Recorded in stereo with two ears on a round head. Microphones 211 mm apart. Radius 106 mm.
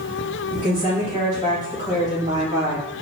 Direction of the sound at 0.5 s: 30° left (ahead or behind).